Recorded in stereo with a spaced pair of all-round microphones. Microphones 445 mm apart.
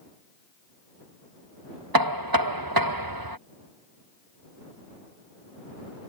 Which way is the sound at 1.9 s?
50° right (ahead or behind).